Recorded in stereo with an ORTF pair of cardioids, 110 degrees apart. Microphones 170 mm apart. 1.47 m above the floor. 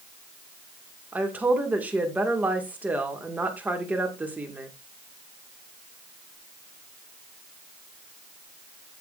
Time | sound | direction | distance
1.1 | a woman speaking | 10° right | 1.9 m